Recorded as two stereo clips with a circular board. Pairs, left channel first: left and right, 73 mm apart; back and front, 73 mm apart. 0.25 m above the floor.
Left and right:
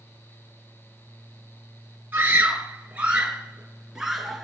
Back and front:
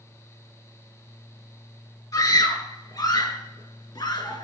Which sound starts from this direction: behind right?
A scream, at 2.1 s.